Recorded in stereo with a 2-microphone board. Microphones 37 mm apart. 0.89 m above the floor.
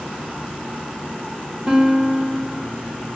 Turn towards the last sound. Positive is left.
turn(degrees=-20)  # may be behind; listen again after turning